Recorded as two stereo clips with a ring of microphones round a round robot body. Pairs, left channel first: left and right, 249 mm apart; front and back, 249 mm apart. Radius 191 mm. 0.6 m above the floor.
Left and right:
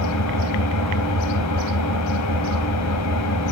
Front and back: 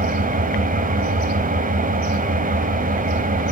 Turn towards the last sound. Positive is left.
turn(degrees=120)